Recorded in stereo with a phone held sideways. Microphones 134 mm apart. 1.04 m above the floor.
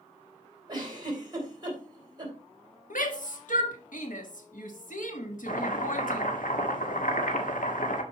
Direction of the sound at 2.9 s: 75° left (ahead or behind).